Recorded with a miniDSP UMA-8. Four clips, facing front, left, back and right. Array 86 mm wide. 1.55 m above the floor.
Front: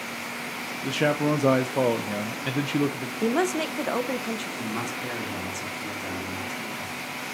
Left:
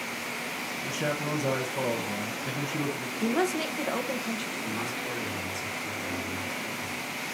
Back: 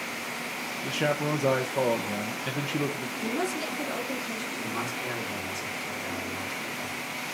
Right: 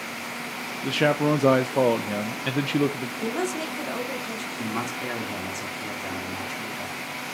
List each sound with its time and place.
0.8 s a man speaking: 75° right, 0.6 m
3.2 s a woman speaking: 5° left, 1.2 m
4.6 s a man speaking: 70° right, 3.5 m